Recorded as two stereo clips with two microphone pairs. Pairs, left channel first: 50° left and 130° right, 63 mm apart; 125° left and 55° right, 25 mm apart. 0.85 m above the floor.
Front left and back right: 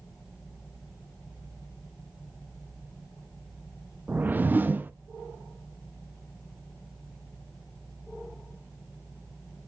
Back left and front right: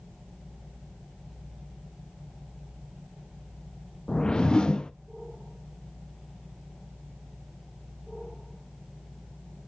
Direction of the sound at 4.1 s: 175° left.